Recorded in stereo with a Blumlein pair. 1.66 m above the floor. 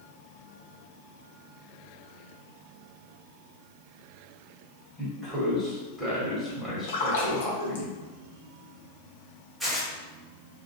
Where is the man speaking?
10° right, 1.3 m.